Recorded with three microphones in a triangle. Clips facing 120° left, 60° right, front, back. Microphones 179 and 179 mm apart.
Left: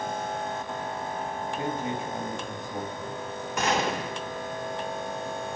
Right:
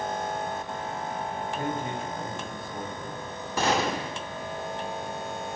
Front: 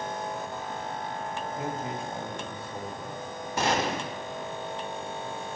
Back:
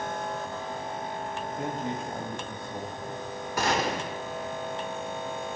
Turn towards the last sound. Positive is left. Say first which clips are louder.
# right 1 dB, even
turn(degrees=-40)